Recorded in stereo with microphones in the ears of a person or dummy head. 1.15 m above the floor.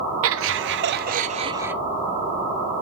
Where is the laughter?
65° right (ahead or behind), 1.5 m; by 1.8 s 5° right (ahead or behind), 0.7 m.